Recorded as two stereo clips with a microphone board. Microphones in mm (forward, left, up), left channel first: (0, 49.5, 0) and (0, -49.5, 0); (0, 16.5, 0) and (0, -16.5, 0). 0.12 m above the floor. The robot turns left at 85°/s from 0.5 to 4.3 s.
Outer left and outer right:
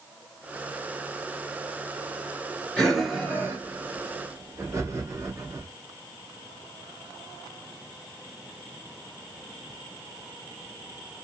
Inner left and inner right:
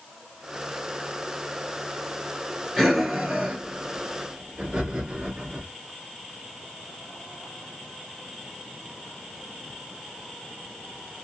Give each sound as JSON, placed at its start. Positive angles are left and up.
{"t": 2.8, "sound": "breathing", "side_deg": 10, "distance_m": 1.2}